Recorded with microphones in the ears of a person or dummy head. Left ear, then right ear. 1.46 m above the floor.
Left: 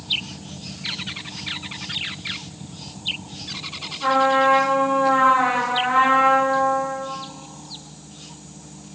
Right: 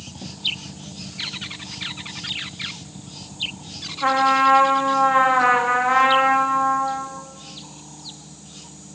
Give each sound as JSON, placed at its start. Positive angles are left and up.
{"t": 4.0, "sound": "a trumpet", "side_deg": -25, "distance_m": 0.5}